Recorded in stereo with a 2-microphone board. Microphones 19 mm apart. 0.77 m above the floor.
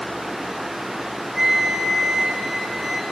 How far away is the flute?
About 1.4 m.